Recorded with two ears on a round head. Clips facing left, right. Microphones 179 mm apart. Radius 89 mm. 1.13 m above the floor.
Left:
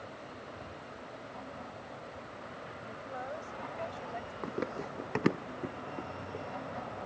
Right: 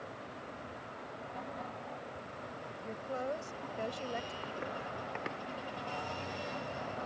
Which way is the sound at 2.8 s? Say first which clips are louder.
Right 5 dB; 60° right (ahead or behind).